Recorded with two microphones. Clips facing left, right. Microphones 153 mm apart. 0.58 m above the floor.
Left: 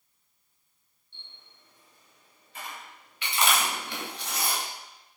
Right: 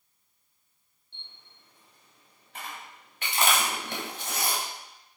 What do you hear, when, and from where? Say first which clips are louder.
1.1 s a camera shutter: even; 60° right (ahead or behind), 1.8 m
3.2 s chewing: even; 40° right (ahead or behind), 1.1 m